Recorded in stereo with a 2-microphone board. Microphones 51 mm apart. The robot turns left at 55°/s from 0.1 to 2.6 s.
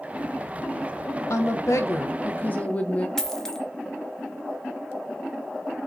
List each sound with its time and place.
1.3 s a woman speaking: 105° left, 0.6 m; by 3.1 s 30° left, 0.6 m
3.2 s a dropped coin: 10° left (ahead or behind), 0.5 m